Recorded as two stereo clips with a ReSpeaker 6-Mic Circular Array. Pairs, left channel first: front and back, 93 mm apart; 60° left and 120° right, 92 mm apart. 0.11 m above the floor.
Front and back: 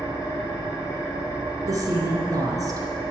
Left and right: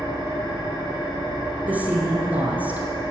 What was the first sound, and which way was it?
An engine running, 45° left.